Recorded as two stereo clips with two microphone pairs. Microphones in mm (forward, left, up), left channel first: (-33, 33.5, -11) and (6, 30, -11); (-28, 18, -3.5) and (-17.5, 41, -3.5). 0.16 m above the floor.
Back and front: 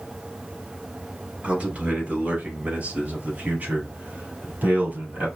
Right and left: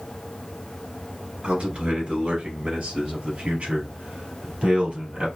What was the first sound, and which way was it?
A man speaking, 35° left.